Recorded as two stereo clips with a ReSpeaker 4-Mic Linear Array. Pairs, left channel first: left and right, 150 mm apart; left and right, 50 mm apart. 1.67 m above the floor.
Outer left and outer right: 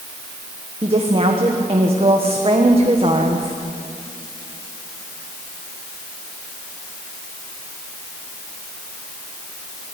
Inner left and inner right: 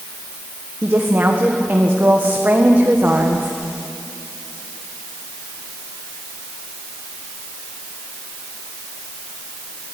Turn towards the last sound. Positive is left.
turn(degrees=-40)  # may be behind; listen again after turning